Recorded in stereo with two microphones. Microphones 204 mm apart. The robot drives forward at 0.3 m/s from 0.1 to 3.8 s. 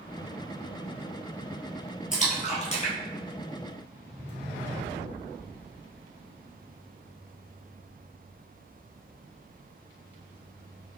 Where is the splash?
40° left (ahead or behind), 0.9 m; by 4.3 s 25° left (ahead or behind), 1.4 m.